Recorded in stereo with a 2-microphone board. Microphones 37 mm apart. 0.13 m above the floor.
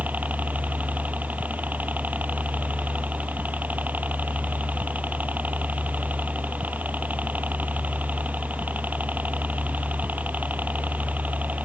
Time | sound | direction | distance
0.0 | a helicopter | 55° right (ahead or behind) | ?